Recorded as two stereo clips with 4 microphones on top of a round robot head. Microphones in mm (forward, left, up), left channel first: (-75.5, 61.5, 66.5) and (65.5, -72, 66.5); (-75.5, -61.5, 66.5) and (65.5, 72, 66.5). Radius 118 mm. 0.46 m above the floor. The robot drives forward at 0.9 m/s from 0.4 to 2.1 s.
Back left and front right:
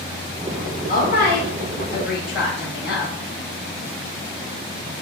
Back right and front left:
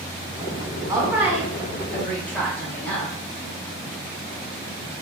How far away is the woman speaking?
About 1.7 m.